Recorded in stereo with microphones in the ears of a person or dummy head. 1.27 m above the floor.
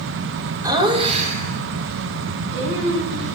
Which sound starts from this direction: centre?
Laughter, at 0.6 s.